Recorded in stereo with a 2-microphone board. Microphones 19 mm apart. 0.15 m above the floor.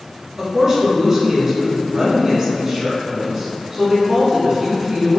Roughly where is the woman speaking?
Right.